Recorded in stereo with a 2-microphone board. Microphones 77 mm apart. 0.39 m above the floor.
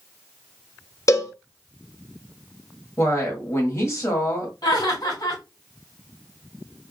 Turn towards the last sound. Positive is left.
turn(degrees=60)  # may be behind; listen again after turning